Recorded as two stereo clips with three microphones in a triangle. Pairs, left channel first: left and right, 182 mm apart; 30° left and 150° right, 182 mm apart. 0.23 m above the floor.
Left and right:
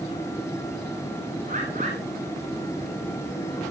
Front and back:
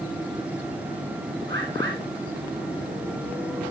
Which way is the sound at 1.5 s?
130° right.